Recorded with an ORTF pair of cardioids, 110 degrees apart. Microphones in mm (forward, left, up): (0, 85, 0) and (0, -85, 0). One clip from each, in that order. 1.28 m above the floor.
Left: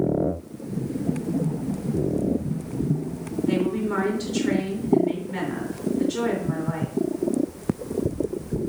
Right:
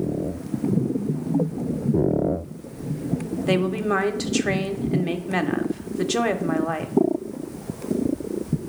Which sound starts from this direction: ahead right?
A woman speaking, at 3.5 s.